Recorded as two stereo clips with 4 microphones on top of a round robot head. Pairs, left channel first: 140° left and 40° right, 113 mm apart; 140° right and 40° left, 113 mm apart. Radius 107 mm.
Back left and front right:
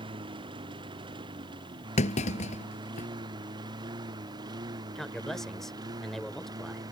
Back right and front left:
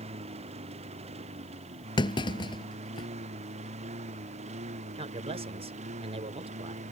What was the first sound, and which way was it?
A lawn mower, 10° left.